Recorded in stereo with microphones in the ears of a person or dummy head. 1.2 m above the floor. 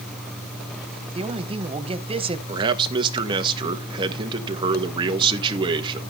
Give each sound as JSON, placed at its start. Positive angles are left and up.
{"t": 1.1, "sound": "a man speaking", "side_deg": -30, "distance_m": 1.2}
{"t": 2.5, "sound": "a man speaking", "side_deg": -25, "distance_m": 1.7}